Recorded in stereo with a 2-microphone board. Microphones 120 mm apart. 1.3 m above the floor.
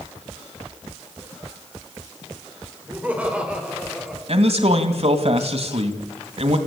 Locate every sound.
2.9 s laughter: 15° right (ahead or behind), 5.5 m; by 4.2 s 5° right (ahead or behind), 5 m
4.3 s a man speaking: 60° right (ahead or behind), 2.5 m